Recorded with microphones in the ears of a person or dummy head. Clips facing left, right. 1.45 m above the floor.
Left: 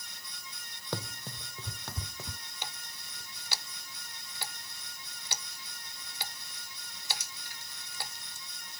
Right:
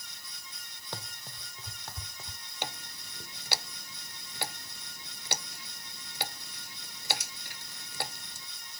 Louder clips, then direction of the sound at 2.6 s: Right 7 dB; 55° right (ahead or behind).